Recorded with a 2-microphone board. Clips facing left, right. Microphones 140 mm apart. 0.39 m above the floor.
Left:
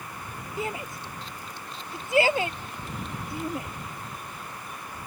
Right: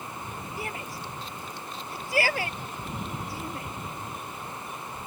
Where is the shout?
20° left (ahead or behind).